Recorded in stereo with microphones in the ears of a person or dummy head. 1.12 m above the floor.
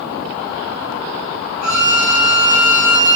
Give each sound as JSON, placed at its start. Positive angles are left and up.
{"t": 1.6, "sound": "a violin", "side_deg": -50, "distance_m": 1.0}